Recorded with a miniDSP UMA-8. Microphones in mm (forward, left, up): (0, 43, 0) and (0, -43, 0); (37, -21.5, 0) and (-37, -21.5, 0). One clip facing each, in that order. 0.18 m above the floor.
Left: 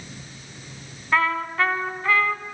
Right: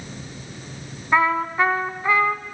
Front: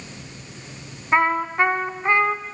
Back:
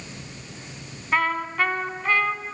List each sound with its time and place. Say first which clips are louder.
1.1 s a trumpet: right 3 dB, front 4 dB; 35° right, 1.2 m